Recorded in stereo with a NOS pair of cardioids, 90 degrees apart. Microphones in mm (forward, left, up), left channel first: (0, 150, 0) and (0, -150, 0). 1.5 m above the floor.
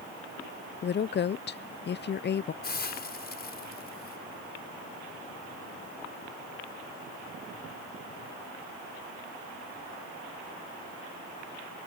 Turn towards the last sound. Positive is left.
turn(degrees=30)